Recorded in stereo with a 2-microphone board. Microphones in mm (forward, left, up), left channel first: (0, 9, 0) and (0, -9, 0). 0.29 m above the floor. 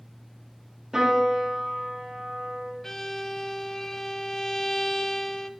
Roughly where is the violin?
Left.